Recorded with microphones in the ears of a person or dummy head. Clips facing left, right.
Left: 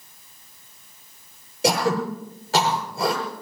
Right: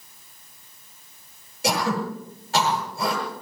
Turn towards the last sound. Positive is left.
turn(degrees=75)  # may be behind; listen again after turning